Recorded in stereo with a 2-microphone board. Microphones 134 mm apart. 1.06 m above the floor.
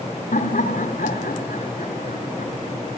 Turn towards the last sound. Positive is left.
turn(degrees=85)